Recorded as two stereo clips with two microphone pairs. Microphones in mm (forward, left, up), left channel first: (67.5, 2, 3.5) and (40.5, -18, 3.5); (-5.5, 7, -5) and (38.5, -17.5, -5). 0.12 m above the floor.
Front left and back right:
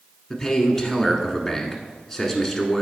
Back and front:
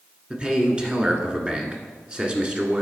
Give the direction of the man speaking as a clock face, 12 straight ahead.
1 o'clock.